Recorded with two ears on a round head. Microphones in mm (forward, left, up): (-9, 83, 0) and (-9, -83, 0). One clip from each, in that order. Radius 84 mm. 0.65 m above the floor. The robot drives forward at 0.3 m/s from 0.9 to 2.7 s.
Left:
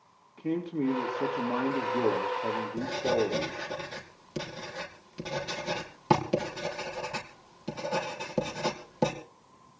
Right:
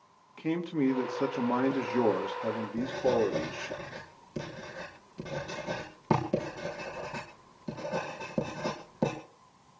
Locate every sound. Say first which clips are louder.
0.4 s a man speaking: right 1 dB; 55° right (ahead or behind), 1.6 m; by 3.8 s 45° right (ahead or behind), 1.7 m
2.8 s writing: right 1 dB; 85° left, 5.5 m